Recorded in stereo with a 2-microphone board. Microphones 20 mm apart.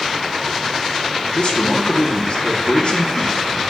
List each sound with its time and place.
1.3 s a man speaking: 50° left (ahead or behind), 2.5 m